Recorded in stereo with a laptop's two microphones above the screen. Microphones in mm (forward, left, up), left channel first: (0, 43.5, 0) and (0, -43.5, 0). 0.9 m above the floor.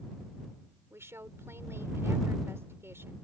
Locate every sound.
0.9 s a woman speaking: 30° right (ahead or behind)